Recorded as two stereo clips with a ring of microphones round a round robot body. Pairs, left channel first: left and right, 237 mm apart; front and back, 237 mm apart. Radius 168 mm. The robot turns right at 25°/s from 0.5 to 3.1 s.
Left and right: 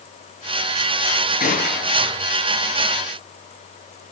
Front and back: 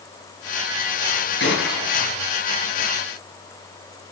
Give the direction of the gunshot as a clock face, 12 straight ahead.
11 o'clock.